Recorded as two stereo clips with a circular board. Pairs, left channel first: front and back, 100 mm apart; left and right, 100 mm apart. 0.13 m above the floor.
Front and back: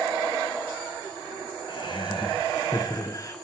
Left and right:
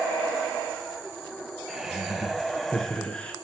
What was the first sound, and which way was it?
Laughter, 10° right.